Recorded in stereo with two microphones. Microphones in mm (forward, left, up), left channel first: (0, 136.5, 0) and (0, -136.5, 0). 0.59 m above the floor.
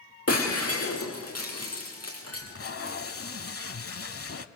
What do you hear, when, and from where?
0.3 s breaking glass: 60° left (ahead or behind), 3.5 m
2.3 s tape being pulled: 55° left (ahead or behind), 0.8 m